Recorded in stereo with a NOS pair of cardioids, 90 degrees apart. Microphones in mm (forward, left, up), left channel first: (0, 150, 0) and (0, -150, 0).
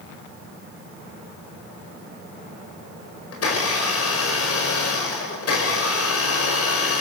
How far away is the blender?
About 7 m.